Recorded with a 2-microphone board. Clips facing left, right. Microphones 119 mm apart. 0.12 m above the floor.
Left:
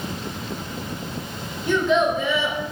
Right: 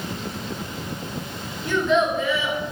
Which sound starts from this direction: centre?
A child speaking, at 1.6 s.